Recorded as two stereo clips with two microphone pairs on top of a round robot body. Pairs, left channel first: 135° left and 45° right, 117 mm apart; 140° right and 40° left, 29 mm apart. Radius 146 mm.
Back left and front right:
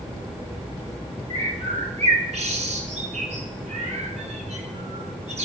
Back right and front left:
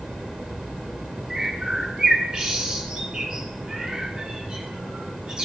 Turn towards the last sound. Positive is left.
turn(degrees=-20)